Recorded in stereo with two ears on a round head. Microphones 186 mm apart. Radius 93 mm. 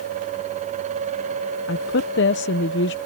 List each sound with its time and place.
1.7 s a woman speaking: 60° left (ahead or behind)